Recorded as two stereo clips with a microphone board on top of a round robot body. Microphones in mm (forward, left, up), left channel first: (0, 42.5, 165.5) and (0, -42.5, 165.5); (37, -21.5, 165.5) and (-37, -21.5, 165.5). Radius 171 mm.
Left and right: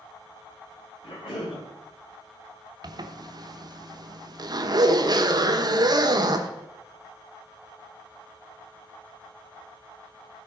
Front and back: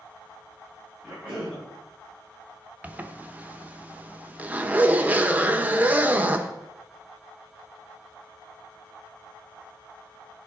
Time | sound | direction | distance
1.0 | a cough | 105° left | 5.5 m
2.8 | a zipper | 115° right | 1.2 m